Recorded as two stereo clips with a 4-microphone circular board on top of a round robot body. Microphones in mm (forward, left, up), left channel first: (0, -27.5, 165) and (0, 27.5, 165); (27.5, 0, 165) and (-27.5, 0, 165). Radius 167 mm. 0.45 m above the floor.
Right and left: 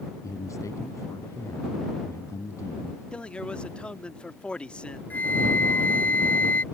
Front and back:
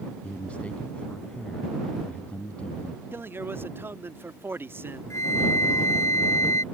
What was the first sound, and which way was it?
A man speaking, 65° right.